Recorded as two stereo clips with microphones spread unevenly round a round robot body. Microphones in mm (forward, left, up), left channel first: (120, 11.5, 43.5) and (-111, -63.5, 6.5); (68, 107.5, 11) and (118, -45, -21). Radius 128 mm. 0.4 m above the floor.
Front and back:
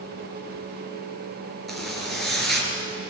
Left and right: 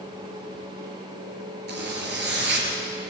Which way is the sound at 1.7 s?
70° right.